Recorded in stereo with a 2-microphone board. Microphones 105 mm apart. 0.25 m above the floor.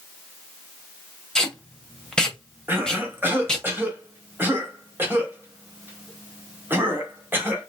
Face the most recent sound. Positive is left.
turn(degrees=-20)  # may be behind; listen again after turning